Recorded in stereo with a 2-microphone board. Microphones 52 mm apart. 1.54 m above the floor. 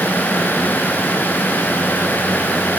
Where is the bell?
I don't hear a bell.